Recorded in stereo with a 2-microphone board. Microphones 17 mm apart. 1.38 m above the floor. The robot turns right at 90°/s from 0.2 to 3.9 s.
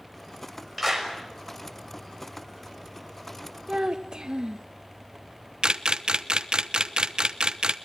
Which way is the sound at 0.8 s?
5° left (ahead or behind).